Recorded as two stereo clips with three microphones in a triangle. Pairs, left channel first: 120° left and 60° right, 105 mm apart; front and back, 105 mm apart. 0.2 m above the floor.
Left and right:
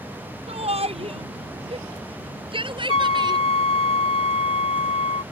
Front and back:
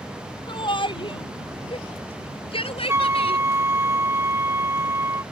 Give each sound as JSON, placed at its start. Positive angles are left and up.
{"t": 0.5, "sound": "a shout", "azimuth_deg": -40}
{"t": 2.9, "sound": "a flute", "azimuth_deg": 115}